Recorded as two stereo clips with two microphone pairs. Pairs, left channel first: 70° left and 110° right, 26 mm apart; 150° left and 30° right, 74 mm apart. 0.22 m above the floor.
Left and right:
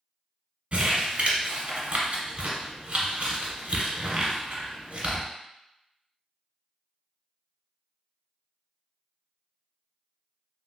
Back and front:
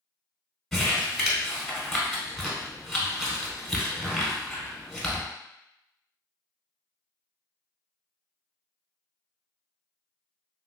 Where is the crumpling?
125° right, 1.1 m.